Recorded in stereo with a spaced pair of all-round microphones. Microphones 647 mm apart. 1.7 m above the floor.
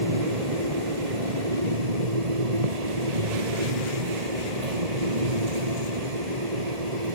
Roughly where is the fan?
Right.